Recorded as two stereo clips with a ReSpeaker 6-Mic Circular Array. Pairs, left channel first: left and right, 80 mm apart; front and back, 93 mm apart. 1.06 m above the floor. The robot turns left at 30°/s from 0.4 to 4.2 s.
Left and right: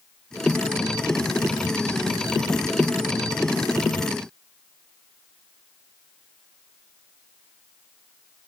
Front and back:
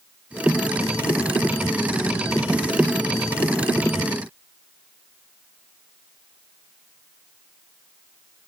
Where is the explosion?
No explosion in this recording.